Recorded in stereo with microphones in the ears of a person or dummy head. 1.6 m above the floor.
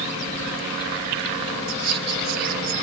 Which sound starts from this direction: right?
Whispering, at 1.7 s.